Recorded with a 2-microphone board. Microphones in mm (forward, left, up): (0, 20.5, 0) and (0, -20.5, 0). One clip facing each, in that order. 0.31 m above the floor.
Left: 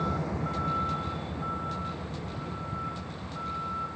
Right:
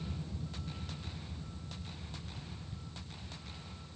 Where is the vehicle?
85° left.